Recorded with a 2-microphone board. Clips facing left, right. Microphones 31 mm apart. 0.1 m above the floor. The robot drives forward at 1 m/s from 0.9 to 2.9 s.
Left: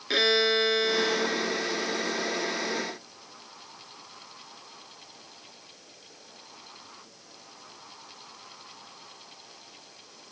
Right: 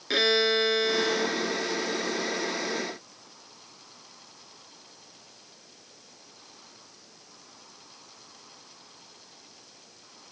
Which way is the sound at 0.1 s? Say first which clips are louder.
Even; 5° left (ahead or behind).